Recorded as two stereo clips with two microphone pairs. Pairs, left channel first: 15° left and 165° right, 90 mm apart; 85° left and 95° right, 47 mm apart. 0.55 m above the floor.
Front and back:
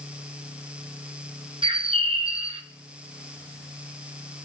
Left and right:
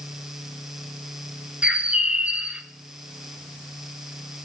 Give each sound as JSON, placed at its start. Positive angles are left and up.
{"t": 1.6, "sound": "a bird", "azimuth_deg": -160, "distance_m": 0.9}